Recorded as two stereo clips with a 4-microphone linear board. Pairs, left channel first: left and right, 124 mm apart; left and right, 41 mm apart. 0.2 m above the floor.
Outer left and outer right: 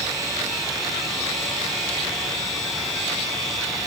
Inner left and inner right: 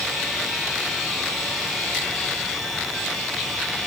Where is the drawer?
I don't hear a drawer.